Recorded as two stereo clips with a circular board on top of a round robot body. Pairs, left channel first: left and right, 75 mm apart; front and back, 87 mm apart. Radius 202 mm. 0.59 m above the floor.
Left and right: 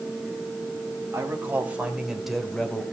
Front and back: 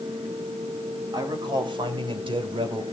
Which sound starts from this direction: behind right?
A man speaking, at 1.1 s.